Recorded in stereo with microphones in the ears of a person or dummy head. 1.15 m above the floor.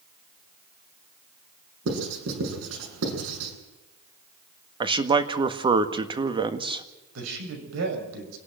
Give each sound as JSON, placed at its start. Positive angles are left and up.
{"t": 1.9, "sound": "writing", "side_deg": -85, "distance_m": 8.0}
{"t": 4.8, "sound": "a man speaking", "side_deg": -25, "distance_m": 1.6}
{"t": 7.2, "sound": "a man speaking", "side_deg": -75, "distance_m": 6.5}